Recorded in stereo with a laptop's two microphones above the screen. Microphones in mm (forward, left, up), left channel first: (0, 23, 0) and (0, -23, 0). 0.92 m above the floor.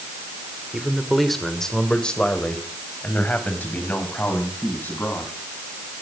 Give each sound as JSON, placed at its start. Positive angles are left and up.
{"t": 0.7, "sound": "a man speaking", "side_deg": -10, "distance_m": 3.0}